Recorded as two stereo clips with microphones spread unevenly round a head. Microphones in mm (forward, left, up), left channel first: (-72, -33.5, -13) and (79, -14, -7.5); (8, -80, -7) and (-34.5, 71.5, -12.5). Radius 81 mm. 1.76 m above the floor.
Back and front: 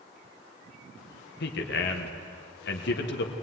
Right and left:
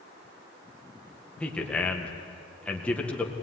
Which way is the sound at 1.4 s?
160° right.